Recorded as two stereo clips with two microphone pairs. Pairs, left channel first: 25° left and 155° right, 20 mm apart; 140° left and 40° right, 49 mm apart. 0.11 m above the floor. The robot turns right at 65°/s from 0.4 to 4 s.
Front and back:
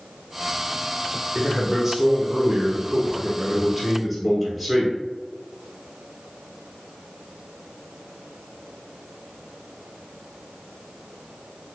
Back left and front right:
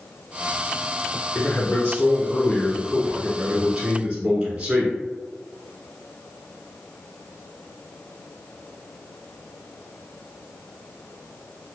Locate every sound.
1.4 s a man speaking: 105° left, 1.1 m; by 5.0 s 85° right, 1.1 m